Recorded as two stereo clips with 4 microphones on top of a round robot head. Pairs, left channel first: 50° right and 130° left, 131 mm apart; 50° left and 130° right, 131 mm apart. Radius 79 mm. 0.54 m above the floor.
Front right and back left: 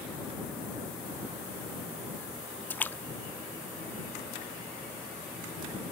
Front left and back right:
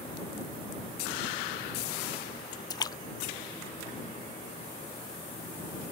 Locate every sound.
2.7 s a splash: 15° left